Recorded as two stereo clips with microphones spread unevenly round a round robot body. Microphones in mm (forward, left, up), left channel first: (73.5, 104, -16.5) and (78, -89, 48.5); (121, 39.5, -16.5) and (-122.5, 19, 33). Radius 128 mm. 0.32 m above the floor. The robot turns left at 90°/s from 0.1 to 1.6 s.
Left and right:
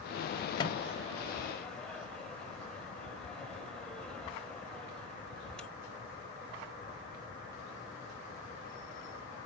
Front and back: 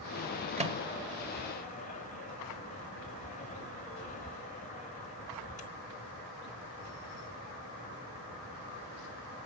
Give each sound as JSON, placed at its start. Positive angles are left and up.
{"t": 0.6, "sound": "a microwave", "azimuth_deg": 120, "distance_m": 1.3}